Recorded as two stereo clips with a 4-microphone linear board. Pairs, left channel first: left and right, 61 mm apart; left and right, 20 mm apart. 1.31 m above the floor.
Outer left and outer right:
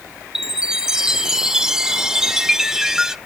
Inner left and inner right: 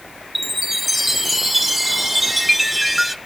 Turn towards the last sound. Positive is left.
turn(degrees=-10)  # may be behind; listen again after turning